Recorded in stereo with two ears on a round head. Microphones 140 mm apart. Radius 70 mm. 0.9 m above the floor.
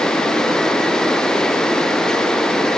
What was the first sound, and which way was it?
Only background noise.